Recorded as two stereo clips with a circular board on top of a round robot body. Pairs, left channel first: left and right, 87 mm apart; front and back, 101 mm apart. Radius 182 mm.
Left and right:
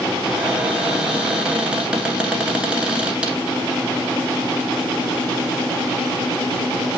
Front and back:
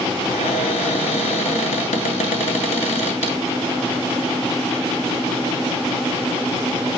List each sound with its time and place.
0.2 s a cupboard door: 10° right, 2.5 m